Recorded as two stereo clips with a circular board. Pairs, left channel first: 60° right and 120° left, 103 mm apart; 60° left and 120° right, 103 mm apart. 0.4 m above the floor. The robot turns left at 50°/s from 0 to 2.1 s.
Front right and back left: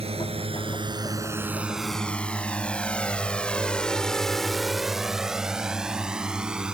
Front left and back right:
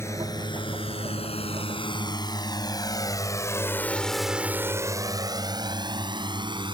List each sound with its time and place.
0.0 s a drone: 125° left; by 6.8 s 160° right